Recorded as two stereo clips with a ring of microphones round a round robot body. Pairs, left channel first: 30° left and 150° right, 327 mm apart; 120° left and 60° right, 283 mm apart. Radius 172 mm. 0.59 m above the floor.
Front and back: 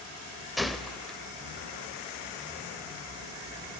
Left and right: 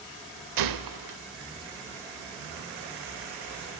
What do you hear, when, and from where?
0.6 s a gunshot: 60° right, 1.1 m